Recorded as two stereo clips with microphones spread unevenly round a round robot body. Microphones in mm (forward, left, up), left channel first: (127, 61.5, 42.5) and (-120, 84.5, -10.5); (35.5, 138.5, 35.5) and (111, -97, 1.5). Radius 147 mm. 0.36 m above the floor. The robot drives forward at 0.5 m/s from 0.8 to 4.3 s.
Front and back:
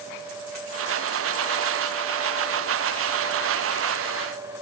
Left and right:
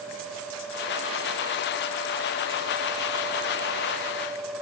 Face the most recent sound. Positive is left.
No sound to turn to.